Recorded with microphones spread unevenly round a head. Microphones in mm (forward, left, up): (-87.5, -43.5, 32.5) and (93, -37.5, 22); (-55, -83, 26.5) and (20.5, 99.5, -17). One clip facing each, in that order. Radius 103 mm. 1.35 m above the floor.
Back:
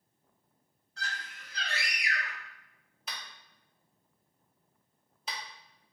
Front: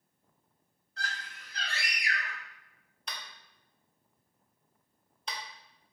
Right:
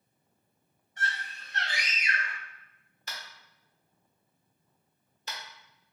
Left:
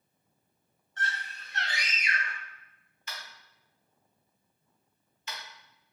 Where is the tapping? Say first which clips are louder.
Front 1 dB, even; 95° right, 0.8 m.